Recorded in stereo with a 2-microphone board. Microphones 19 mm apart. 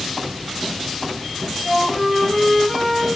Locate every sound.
1.6 s a flute: 20° right (ahead or behind), 2.5 m